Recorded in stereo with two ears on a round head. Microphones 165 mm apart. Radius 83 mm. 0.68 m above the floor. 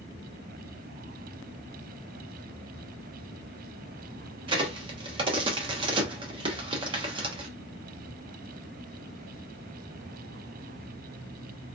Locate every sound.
4.5 s a crack: 25° right (ahead or behind), 0.8 m